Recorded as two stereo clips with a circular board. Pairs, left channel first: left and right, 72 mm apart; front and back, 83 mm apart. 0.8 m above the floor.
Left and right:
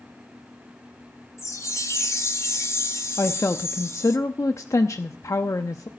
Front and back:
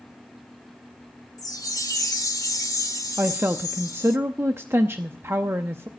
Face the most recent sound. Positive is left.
turn(degrees=125)